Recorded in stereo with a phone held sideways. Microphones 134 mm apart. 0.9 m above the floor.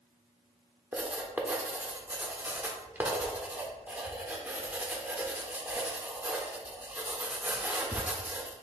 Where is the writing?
15° right (ahead or behind), 0.6 m.